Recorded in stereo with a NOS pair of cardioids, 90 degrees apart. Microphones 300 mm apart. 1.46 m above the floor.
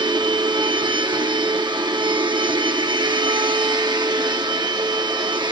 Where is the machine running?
15° right, 2.5 m.